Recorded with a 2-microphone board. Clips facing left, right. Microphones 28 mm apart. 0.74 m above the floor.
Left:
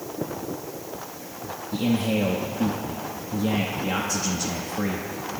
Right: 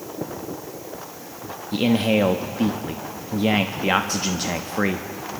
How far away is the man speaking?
About 0.7 m.